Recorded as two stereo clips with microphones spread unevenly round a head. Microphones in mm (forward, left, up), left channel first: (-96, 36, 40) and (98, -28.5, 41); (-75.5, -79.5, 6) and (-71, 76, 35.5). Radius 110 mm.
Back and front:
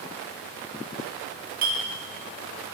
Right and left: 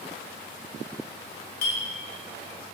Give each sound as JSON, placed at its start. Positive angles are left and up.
{"t": 1.6, "sound": "a clink", "azimuth_deg": -60, "distance_m": 0.9}